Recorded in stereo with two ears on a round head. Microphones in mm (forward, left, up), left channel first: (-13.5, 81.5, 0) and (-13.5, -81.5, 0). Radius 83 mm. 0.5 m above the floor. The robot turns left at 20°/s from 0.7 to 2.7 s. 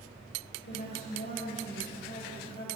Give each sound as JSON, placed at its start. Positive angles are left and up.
{"t": 0.7, "sound": "a woman speaking", "azimuth_deg": 60, "distance_m": 2.5}